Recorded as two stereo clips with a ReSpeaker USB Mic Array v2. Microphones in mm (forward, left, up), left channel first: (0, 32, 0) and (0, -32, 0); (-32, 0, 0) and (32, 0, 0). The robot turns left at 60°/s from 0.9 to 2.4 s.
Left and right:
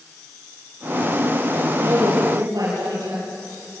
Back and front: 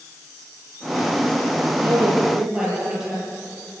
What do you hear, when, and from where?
1.8 s a woman speaking: 45° right, 8 m; by 3.2 s 80° right, 8 m